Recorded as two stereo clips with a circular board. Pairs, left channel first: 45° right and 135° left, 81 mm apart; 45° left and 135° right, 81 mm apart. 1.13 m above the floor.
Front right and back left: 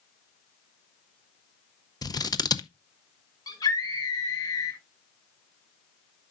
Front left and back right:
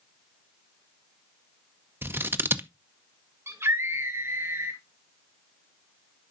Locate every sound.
2.0 s scissors: 75° right, 0.7 m
3.5 s a scream: 80° right, 1.1 m